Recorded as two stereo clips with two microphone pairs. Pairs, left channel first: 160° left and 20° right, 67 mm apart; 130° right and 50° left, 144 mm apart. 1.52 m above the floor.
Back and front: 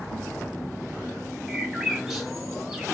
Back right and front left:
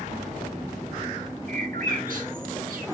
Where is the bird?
65° left, 1.7 m.